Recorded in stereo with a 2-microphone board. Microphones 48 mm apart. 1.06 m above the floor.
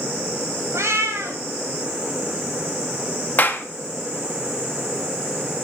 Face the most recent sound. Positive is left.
turn(degrees=40)  # may be behind; listen again after turning